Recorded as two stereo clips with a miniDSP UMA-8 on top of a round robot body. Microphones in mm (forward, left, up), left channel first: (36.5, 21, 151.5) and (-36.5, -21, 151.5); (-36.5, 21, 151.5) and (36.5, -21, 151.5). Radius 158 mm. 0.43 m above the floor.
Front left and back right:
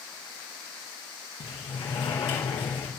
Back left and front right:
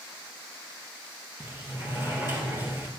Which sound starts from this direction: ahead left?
A sliding door, at 1.4 s.